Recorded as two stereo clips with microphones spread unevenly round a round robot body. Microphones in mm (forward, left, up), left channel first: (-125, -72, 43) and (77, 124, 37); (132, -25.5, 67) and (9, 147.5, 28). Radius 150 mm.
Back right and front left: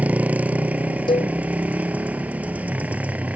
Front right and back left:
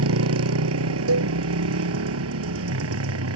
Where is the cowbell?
150° left.